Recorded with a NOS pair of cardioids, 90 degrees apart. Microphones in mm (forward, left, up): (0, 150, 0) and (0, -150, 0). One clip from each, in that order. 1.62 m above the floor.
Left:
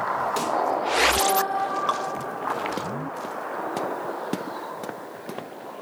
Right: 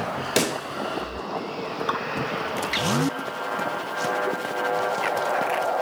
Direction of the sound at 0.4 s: 65° right.